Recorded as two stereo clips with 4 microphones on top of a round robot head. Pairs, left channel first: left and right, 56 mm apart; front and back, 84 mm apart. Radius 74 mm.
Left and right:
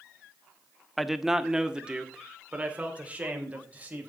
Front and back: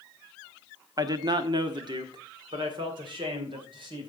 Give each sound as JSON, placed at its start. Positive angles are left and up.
{"t": 1.0, "sound": "a man speaking", "azimuth_deg": 180, "distance_m": 1.0}